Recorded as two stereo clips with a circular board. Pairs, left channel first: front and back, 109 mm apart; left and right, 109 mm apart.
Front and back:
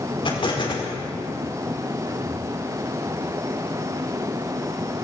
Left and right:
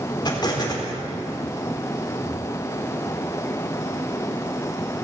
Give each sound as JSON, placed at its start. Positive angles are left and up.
{"t": 0.2, "sound": "an explosion", "azimuth_deg": 40, "distance_m": 4.0}